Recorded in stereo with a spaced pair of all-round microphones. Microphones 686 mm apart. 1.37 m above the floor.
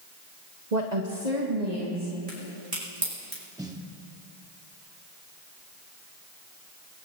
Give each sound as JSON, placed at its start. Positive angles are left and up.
{"t": 0.7, "sound": "a woman speaking", "side_deg": -80, "distance_m": 0.9}
{"t": 2.3, "sound": "a crack", "side_deg": -60, "distance_m": 5.5}
{"t": 3.6, "sound": "a snare drum", "side_deg": -5, "distance_m": 1.1}